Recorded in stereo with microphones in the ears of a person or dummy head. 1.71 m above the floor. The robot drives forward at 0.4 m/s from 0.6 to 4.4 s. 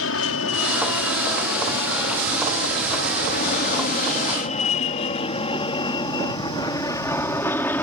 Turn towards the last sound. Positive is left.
turn(degrees=10)  # may be behind; listen again after turning